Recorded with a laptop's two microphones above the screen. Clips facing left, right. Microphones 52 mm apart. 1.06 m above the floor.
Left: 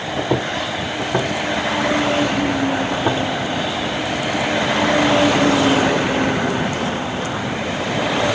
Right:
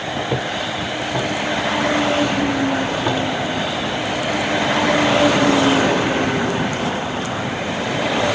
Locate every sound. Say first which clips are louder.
0.2 s footsteps: left 3 dB; 55° left (ahead or behind), 2.0 m; by 3.2 s 15° left (ahead or behind), 1.3 m